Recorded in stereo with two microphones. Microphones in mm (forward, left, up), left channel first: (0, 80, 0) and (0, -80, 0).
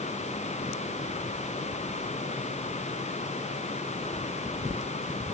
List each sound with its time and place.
Only background noise.